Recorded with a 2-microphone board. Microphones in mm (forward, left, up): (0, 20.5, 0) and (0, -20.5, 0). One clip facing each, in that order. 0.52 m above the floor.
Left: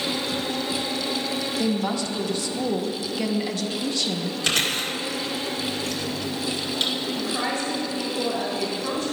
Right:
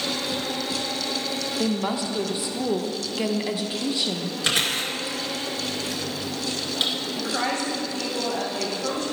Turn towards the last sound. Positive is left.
turn(degrees=-50)  # may be behind; listen again after turning